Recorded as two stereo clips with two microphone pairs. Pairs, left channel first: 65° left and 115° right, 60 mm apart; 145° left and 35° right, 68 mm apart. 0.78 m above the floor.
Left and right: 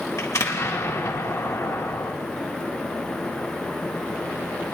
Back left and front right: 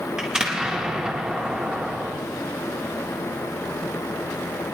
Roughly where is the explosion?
Ahead left.